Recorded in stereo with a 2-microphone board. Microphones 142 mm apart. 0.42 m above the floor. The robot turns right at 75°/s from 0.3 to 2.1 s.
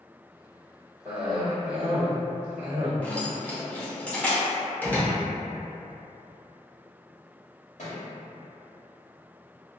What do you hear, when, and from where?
1.1 s a cough: 10° right (ahead or behind), 1.5 m; by 3.0 s 20° right (ahead or behind), 1.5 m
3.0 s keys jangling: 10° left (ahead or behind), 0.9 m
4.8 s a door slam: 15° left (ahead or behind), 0.8 m
7.8 s a thud: 65° left (ahead or behind), 0.9 m